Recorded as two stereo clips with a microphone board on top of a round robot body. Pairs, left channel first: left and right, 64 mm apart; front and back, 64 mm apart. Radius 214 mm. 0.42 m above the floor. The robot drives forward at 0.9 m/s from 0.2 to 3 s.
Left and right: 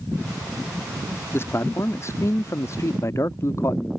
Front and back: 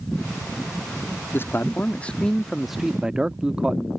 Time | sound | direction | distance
1.3 | a man speaking | 45° left | ?